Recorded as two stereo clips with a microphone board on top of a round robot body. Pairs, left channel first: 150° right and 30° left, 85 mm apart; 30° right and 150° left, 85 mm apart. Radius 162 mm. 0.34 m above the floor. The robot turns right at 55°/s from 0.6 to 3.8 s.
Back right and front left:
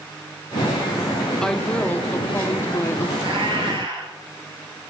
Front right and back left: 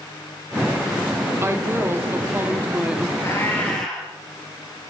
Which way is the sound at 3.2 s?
20° left.